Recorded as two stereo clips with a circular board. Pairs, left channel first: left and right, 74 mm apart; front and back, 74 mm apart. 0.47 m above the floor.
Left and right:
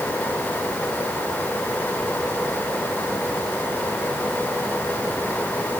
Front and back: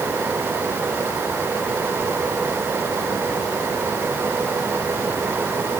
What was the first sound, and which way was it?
Only background noise.